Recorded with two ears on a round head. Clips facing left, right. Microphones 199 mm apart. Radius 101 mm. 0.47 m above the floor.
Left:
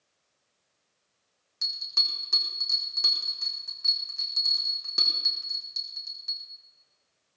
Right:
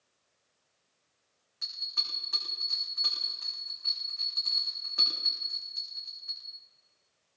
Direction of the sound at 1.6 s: 55° left (ahead or behind).